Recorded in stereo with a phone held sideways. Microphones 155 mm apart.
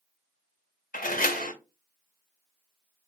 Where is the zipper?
I don't hear a zipper.